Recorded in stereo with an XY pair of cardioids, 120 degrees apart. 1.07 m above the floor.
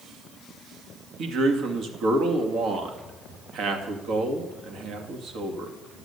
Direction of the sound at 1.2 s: 65° right.